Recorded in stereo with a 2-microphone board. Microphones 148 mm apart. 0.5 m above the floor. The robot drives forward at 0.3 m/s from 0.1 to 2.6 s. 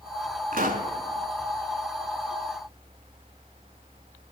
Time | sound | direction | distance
0.5 | a pop | 75° right (ahead or behind) | 0.9 m